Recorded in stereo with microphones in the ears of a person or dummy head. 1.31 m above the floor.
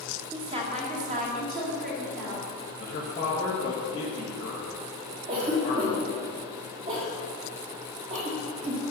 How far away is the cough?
About 1.4 m.